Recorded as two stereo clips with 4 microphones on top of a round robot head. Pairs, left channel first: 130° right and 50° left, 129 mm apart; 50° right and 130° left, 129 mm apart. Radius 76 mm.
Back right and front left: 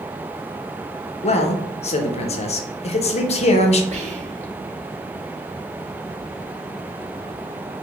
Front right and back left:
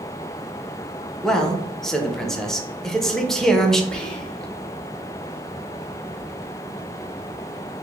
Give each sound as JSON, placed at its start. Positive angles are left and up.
{"t": 1.2, "sound": "a man speaking", "azimuth_deg": -135, "distance_m": 0.8}
{"t": 3.9, "sound": "whispering", "azimuth_deg": 35, "distance_m": 1.2}